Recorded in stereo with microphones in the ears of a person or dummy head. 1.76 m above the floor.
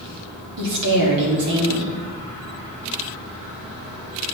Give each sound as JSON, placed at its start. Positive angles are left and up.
{"t": 0.6, "sound": "a woman speaking", "side_deg": -60, "distance_m": 3.5}